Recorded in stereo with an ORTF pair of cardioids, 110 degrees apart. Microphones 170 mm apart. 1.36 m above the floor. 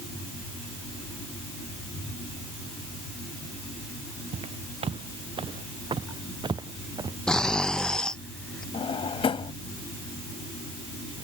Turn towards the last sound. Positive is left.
turn(degrees=35)